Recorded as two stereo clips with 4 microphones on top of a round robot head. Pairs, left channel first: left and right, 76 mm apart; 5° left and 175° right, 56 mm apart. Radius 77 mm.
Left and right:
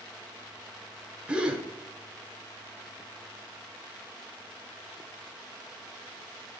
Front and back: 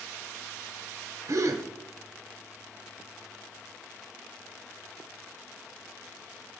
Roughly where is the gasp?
Behind.